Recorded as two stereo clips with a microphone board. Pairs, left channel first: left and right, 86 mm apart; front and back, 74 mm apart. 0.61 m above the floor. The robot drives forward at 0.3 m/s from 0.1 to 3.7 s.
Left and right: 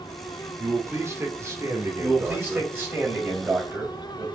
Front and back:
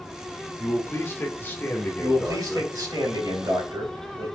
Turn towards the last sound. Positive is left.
turn(degrees=-155)